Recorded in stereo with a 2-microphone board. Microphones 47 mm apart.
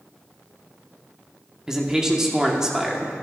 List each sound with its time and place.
1.7 s a man speaking: 10° right (ahead or behind), 1.2 m